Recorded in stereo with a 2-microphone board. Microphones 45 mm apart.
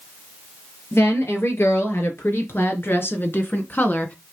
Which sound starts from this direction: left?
A woman speaking, at 0.9 s.